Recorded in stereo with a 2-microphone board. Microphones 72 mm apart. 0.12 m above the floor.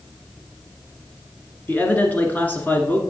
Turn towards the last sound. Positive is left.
turn(degrees=25)  # may be behind; listen again after turning